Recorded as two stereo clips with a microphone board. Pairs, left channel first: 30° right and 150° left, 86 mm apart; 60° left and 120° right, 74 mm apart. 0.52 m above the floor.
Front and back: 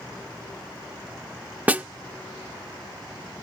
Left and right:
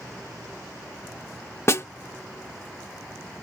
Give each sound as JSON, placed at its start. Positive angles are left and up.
{"t": 1.7, "sound": "a snare drum", "azimuth_deg": 90}